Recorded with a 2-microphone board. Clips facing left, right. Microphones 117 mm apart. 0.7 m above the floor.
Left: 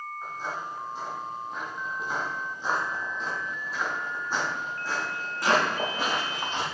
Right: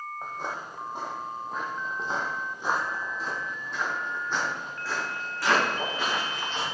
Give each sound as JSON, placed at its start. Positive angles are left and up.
{"t": 0.2, "sound": "footsteps", "side_deg": -65, "distance_m": 1.5}